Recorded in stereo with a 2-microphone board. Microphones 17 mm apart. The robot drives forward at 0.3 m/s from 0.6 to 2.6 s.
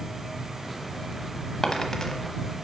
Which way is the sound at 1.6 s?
30° left (ahead or behind).